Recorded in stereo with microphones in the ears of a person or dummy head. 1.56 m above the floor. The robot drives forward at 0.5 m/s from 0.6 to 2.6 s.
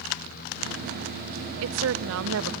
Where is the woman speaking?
80° right, 0.8 m; by 2.5 s 70° right (ahead or behind), 0.9 m.